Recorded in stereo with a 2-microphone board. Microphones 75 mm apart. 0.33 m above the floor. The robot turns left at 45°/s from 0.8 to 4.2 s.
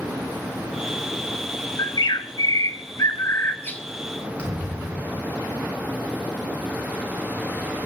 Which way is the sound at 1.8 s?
110° left.